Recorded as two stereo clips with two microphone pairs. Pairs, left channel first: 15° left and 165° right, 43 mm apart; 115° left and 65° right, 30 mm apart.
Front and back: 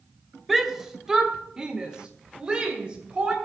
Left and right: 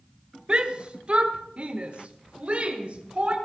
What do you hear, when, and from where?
0.5 s a shout: 80° right, 1.0 m; by 3.4 s 105° right, 2.5 m